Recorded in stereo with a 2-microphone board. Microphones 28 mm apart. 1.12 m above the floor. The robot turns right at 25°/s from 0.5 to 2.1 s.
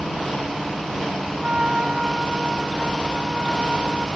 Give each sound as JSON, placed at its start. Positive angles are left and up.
{"t": 1.4, "sound": "a trumpet", "side_deg": -40}